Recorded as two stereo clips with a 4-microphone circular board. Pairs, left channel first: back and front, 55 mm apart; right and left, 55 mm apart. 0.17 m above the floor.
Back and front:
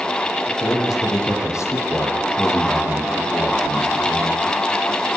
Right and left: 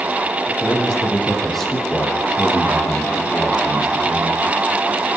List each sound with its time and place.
0.5 s a man speaking: 175° right, 7.5 m